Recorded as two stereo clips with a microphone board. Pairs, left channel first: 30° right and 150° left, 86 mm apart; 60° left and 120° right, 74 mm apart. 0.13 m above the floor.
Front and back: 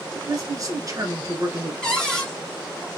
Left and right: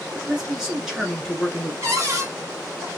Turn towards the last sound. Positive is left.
turn(degrees=-110)